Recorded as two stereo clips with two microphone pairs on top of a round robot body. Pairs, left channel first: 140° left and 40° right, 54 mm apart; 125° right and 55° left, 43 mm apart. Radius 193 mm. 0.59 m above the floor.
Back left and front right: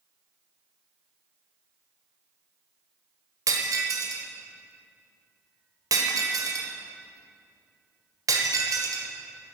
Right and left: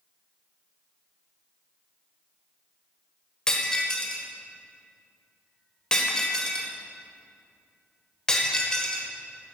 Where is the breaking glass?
50° right, 1.4 m.